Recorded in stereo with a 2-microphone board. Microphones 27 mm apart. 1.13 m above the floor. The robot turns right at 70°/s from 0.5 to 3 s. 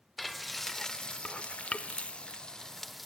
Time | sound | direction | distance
0.2 | frying | 5° left (ahead or behind) | 1.0 m